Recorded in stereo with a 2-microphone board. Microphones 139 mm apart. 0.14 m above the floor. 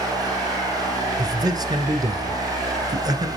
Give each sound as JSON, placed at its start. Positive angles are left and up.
{"t": 1.2, "sound": "a man speaking", "side_deg": -30, "distance_m": 1.5}